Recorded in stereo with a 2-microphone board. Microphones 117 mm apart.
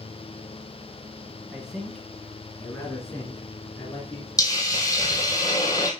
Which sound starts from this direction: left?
A hiss, at 4.4 s.